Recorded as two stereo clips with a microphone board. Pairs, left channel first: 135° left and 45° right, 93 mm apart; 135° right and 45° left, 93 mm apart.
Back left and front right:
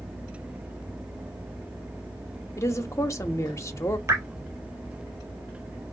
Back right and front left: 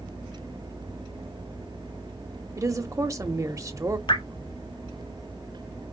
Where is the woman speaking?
90° left, 0.9 m.